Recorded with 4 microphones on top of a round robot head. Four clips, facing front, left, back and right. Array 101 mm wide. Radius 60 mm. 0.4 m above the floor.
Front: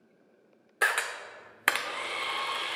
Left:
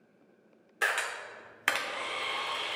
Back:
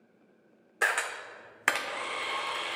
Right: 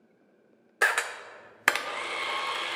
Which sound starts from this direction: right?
A camera shutter, at 0.8 s.